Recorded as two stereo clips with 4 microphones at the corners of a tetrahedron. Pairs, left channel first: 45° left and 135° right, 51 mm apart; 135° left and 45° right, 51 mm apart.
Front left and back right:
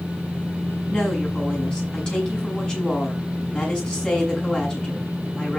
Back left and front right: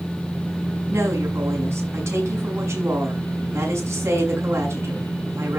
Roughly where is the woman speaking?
Ahead right.